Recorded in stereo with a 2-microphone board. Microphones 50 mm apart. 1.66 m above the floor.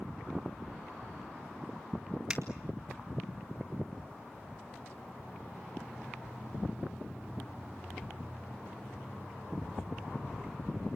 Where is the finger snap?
25° right (ahead or behind), 2 m.